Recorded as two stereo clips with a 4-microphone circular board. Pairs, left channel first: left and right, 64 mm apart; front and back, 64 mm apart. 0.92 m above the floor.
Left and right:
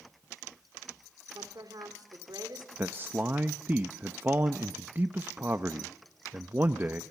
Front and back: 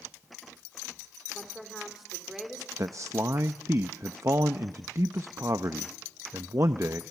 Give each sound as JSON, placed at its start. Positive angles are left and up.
{"t": 1.3, "sound": "a woman speaking", "azimuth_deg": -95, "distance_m": 2.0}
{"t": 2.8, "sound": "a man speaking", "azimuth_deg": -145, "distance_m": 0.7}